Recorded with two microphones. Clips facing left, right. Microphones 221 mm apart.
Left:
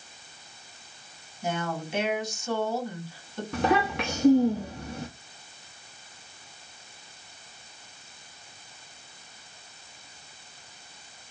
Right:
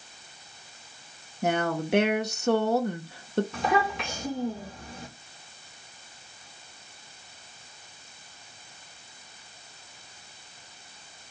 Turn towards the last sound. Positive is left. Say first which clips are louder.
# left 2 dB
turn(degrees=65)  # may be behind; listen again after turning